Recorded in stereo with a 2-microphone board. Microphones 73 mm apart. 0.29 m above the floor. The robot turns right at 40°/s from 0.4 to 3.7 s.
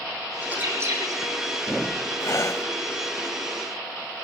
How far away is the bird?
About 6 m.